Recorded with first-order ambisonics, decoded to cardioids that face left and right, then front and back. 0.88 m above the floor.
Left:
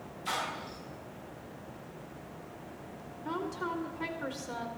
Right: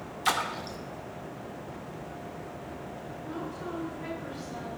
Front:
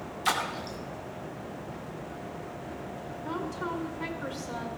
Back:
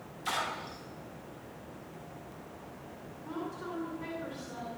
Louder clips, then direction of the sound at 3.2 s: Left 4 dB, front 5 dB; 50° left.